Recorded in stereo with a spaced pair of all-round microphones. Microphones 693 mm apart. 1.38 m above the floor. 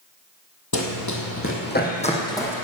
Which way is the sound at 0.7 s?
30° left (ahead or behind).